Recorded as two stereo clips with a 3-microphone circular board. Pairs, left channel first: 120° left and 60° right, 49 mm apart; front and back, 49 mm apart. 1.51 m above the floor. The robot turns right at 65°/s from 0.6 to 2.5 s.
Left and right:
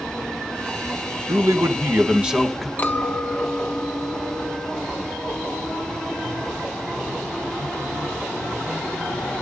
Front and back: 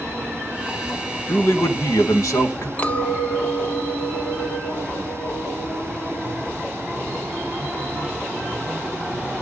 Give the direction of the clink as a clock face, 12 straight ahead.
10 o'clock.